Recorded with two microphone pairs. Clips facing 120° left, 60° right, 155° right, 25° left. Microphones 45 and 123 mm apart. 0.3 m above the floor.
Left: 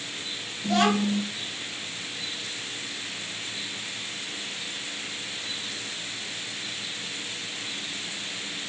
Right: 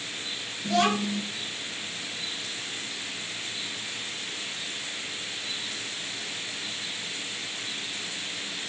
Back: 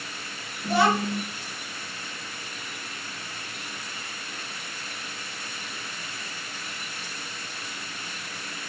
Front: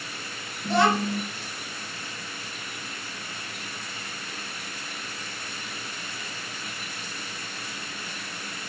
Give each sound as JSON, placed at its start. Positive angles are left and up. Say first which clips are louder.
{"t": 0.6, "sound": "a child speaking", "louder": "left 2 dB, even", "azimuth_deg": 125, "distance_m": 0.9}